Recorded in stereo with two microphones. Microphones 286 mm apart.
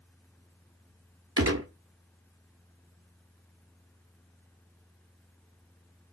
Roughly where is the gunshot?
Right.